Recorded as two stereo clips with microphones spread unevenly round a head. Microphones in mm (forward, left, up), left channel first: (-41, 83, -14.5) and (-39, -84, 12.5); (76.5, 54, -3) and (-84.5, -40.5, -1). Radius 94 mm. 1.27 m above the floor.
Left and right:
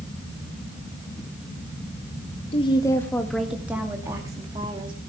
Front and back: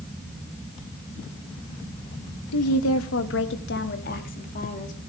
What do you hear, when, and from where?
2.5 s a woman speaking: 30° left, 1.4 m; by 5.0 s 25° right, 3 m